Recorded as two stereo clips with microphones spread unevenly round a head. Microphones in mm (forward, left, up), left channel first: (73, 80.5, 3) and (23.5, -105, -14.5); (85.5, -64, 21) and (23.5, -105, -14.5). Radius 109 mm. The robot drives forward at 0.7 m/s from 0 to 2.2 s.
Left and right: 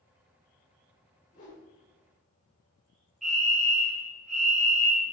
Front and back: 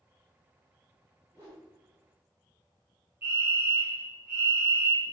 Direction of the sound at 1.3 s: 130° left.